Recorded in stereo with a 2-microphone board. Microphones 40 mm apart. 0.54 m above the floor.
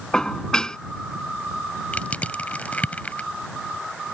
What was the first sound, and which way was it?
Dishes clattering, 15° left (ahead or behind).